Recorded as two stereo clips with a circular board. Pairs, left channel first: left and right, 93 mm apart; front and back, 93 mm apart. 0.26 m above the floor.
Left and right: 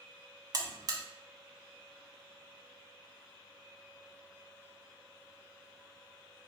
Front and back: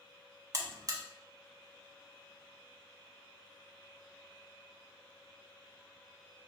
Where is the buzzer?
130° right, 0.7 m.